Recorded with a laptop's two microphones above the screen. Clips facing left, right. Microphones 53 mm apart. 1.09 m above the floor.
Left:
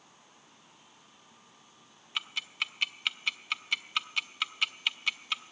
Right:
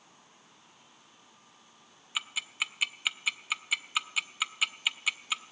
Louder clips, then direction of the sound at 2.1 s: Right 1 dB; 5° right (ahead or behind).